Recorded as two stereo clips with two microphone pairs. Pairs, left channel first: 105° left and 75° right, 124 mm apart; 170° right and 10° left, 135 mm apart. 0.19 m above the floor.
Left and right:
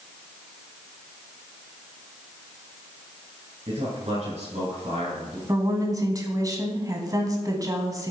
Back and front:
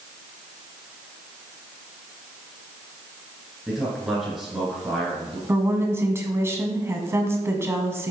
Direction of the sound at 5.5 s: 45° right.